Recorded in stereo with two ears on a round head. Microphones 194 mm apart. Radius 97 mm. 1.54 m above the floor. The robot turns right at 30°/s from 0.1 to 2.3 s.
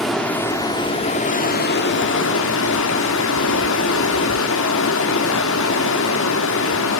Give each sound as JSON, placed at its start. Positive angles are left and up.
{"t": 0.0, "sound": "running water", "azimuth_deg": 0, "distance_m": 2.5}